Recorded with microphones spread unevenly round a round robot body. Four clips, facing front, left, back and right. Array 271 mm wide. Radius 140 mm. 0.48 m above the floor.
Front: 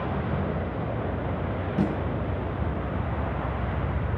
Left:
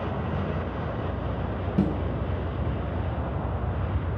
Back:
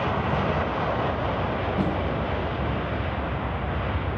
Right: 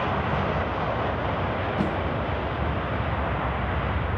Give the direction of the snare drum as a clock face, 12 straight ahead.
9 o'clock.